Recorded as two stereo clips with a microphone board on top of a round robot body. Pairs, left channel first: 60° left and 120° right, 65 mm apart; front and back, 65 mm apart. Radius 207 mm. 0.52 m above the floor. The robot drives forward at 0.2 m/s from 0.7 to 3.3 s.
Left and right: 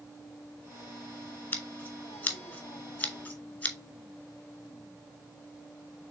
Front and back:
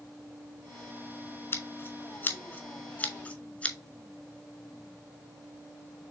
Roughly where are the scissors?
Ahead.